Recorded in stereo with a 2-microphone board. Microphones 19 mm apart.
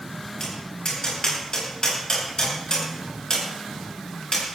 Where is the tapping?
45° left (ahead or behind), 10 m.